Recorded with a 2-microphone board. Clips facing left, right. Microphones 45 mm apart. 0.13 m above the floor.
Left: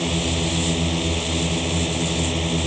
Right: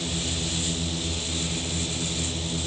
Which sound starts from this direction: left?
A drone, at 0.0 s.